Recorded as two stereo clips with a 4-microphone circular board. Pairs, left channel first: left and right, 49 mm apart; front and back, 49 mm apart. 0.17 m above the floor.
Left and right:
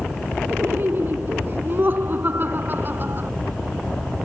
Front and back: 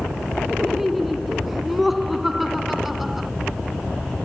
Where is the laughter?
95° right.